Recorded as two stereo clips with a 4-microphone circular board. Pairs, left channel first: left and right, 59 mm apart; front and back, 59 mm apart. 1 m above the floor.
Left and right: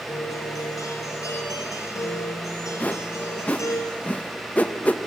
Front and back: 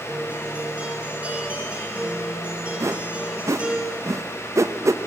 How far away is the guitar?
About 3.5 m.